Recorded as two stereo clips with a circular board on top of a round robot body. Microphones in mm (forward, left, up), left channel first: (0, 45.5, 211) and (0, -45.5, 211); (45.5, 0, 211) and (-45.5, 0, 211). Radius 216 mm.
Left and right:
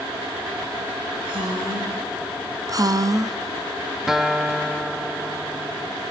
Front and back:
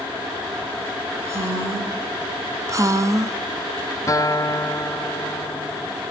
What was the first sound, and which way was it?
A woman speaking, 120° right.